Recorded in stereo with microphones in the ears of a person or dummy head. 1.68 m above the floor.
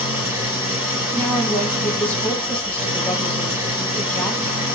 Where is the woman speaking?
15° left (ahead or behind), 0.9 m.